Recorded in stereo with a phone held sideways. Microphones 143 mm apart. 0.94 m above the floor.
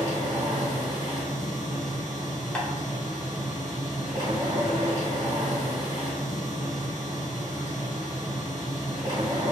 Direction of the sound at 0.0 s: 30° right (ahead or behind).